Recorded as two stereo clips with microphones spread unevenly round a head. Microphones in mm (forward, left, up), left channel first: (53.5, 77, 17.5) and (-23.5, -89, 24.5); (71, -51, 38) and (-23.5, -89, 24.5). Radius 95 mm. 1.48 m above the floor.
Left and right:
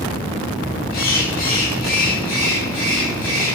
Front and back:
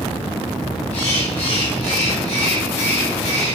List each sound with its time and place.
0.9 s a bird: 20° left, 2.5 m